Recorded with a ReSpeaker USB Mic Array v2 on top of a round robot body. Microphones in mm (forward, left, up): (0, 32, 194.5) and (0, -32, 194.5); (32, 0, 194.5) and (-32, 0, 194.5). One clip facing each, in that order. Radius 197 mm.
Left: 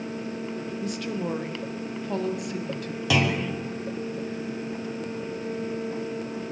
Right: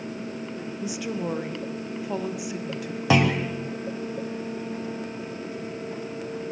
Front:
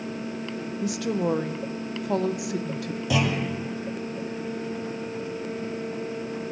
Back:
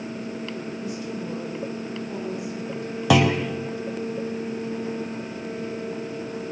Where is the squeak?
No squeak in this recording.